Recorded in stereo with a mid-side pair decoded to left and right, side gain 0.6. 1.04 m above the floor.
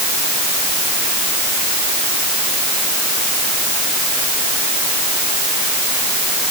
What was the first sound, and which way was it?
Only background noise.